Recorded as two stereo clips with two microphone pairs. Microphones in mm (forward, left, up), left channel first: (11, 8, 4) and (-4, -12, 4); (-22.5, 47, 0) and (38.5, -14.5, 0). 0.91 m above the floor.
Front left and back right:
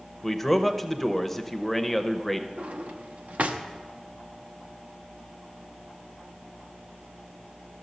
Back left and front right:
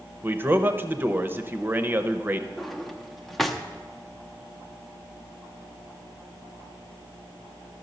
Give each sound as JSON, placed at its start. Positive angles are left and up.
{"t": 0.2, "sound": "a man speaking", "azimuth_deg": -10, "distance_m": 0.6}
{"t": 2.6, "sound": "a drawer", "azimuth_deg": -135, "distance_m": 0.7}